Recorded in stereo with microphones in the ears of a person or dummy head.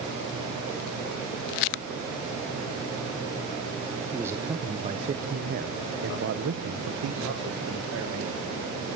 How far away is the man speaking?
About 1.3 m.